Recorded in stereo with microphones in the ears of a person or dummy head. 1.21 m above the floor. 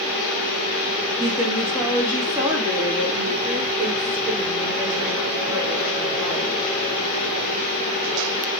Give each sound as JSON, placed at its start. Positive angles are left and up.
{"t": 1.2, "sound": "a woman speaking", "side_deg": -10, "distance_m": 3.0}